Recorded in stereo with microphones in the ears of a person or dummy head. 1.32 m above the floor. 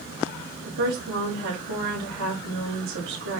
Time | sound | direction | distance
0.6 | a woman speaking | 65° right (ahead or behind) | 3.5 m